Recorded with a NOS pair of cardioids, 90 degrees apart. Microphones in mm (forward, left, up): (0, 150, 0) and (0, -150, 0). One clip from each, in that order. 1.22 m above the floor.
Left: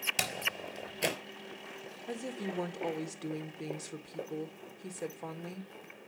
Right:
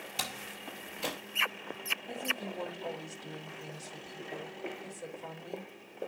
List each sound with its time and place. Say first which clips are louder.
0.2 s a door slam: left 5 dB; 60° left, 3.5 m
2.1 s a woman speaking: right 4 dB; 65° left, 2.0 m